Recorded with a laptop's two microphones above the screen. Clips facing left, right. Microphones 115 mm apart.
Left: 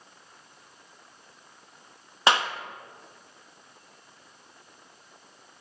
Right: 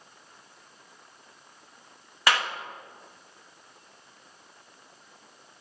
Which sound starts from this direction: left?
A clap, at 2.3 s.